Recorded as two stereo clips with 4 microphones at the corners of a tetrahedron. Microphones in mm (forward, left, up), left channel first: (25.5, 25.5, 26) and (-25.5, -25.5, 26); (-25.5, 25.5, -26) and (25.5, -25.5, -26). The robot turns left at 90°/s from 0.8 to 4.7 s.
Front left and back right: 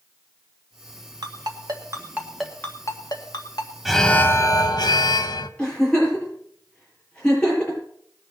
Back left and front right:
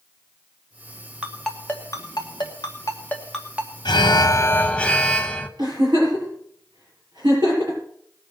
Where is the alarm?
140° left, 1.0 m; by 5.5 s 60° left, 1.0 m.